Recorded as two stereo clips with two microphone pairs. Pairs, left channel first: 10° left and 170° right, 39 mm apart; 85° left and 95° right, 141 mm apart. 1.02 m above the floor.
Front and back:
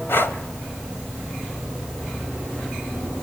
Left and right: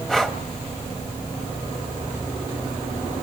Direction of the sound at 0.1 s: 5° right.